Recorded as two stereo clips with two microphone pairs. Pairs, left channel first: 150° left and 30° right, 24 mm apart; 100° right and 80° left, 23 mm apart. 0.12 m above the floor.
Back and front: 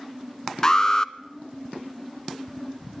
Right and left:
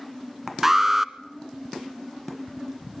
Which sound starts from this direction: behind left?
An alarm, at 0.6 s.